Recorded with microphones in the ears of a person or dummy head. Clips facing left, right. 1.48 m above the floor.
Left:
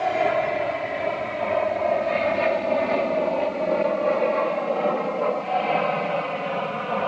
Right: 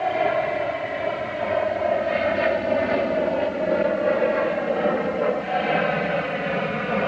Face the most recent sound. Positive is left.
turn(degrees=-25)  # may be behind; listen again after turning